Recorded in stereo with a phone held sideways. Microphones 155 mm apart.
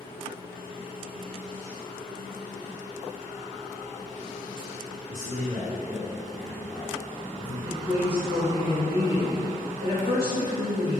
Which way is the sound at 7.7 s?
80° right.